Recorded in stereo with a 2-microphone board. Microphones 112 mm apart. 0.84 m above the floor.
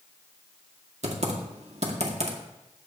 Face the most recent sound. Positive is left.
turn(degrees=-65)  # may be behind; listen again after turning